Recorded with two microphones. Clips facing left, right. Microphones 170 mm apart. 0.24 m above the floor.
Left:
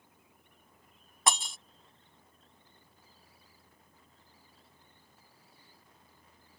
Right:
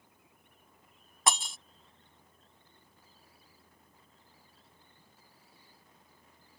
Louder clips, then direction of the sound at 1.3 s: Even; centre (ahead or behind).